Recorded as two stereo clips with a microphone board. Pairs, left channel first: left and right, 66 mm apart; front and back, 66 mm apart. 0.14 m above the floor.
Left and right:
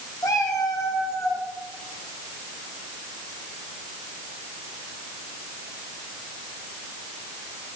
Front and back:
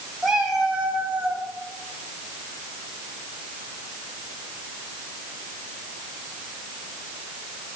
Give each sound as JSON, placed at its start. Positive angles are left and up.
{"t": 0.2, "sound": "a cat meowing", "azimuth_deg": 95, "distance_m": 2.0}